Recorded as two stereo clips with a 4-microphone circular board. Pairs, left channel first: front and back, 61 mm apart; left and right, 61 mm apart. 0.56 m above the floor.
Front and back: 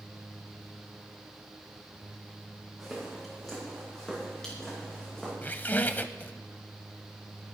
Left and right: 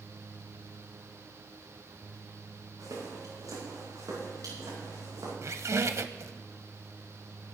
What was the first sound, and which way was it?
Footsteps, 90° right.